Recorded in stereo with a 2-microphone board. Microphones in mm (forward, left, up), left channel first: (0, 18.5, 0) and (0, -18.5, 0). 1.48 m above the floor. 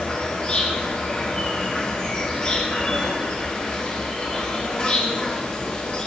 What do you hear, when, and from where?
0.0 s an insect: 25° left (ahead or behind), 1.2 m